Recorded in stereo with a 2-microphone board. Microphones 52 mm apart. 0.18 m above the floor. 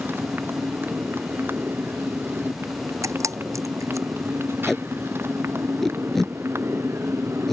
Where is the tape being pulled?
5° left (ahead or behind).